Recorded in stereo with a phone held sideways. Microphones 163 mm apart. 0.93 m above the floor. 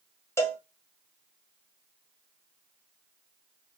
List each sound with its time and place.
0.4 s a cowbell: 15° left (ahead or behind), 0.9 m